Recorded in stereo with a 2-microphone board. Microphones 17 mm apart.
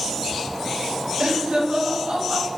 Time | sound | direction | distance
1.2 | laughter | 60° right (ahead or behind) | 4 m